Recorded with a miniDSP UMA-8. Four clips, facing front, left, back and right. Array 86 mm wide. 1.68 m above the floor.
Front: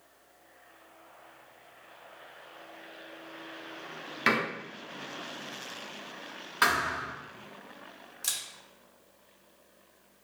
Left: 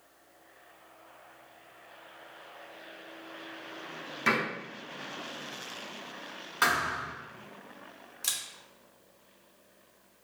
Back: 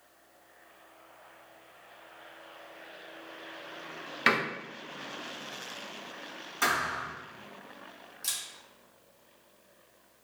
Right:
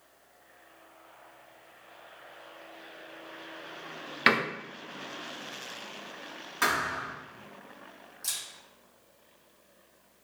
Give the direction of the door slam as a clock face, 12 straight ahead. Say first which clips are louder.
Right 3 dB, back 1 dB; 3 o'clock.